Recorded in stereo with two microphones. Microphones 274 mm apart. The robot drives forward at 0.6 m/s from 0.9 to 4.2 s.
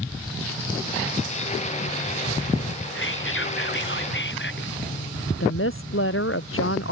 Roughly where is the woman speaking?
Left.